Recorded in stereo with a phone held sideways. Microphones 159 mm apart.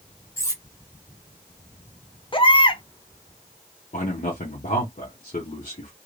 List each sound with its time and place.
0.4 s cutlery clinking: 20° left (ahead or behind), 0.8 m
2.3 s a baby crying: 35° left (ahead or behind), 0.7 m
3.9 s a man speaking: 55° left (ahead or behind), 1.0 m